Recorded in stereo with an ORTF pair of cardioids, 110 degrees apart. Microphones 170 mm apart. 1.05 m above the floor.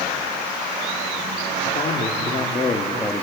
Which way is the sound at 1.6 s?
45° left.